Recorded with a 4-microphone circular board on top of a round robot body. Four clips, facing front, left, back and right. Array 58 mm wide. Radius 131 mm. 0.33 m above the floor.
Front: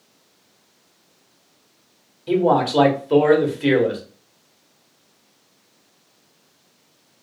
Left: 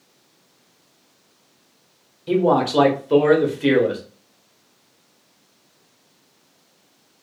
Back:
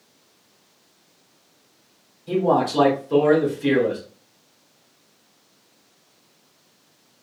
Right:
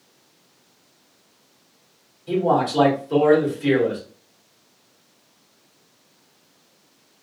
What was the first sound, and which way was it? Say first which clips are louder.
A man speaking: left 2 dB, front 2 dB; 35° left.